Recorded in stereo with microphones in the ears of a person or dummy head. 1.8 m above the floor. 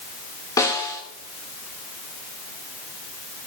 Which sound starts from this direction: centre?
A snare drum, at 0.6 s.